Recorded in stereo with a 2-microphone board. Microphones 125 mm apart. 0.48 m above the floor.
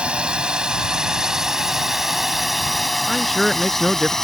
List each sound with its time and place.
0.0 s a drone: 10° right (ahead or behind); by 4.2 s 5° left (ahead or behind)
3.1 s a man speaking: centre (ahead or behind)